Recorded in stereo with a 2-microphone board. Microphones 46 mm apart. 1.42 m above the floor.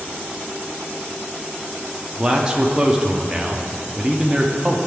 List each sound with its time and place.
2.2 s a man speaking: 15° right (ahead or behind), 0.6 m